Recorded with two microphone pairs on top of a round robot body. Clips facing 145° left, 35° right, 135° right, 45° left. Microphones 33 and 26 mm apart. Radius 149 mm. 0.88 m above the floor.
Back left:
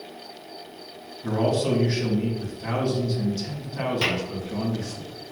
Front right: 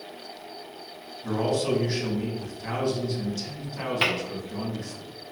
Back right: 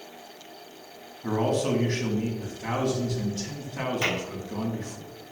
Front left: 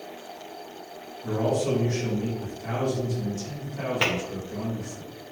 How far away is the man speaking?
About 1.6 m.